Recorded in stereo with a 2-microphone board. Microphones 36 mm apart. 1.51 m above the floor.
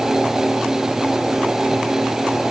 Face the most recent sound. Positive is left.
No sound to turn to.